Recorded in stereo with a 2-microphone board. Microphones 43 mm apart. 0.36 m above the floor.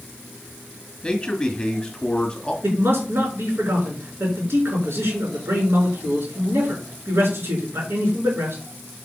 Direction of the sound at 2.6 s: 60° right (ahead or behind).